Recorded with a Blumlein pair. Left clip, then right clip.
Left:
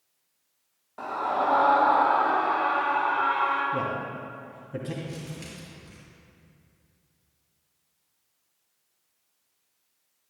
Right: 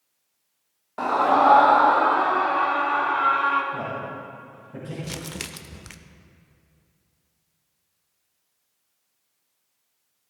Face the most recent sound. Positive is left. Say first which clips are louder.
# right 6 dB
turn(degrees=-45)